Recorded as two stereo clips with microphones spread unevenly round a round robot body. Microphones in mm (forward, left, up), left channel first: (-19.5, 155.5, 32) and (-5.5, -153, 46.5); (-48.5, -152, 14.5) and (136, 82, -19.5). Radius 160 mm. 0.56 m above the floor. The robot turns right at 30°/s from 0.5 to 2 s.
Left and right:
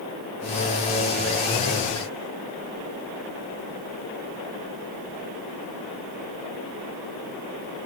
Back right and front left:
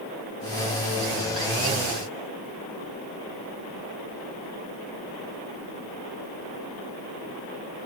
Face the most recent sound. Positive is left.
No sound to turn to.